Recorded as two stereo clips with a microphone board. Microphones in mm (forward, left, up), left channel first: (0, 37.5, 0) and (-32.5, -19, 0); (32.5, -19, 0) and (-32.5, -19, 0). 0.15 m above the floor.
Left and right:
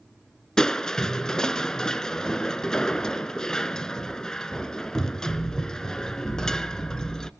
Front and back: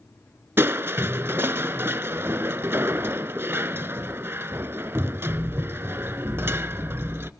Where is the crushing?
140° left, 0.6 m.